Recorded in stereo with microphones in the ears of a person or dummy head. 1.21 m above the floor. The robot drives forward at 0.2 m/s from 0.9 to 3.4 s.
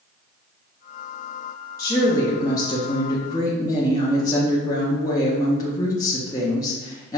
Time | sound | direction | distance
1.8 | a woman speaking | 20° left (ahead or behind) | 0.5 m